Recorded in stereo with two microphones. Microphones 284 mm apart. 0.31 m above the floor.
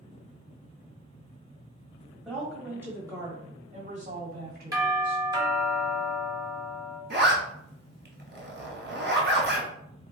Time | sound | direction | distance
2.2 | a woman speaking | centre (ahead or behind) | 1.9 m
4.7 | a doorbell | 15° right (ahead or behind) | 1.7 m
7.1 | a zipper | 35° right (ahead or behind) | 1.2 m